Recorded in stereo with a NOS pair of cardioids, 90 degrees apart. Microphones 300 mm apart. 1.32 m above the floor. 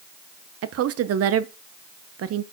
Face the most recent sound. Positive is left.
turn(degrees=-50)